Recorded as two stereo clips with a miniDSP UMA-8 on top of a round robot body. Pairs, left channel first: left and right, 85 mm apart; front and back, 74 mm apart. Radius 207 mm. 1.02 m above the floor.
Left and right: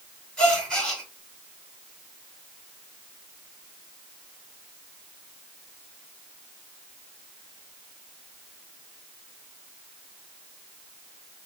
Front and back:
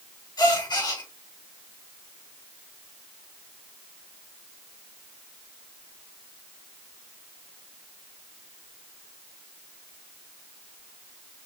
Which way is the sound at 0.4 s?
5° left.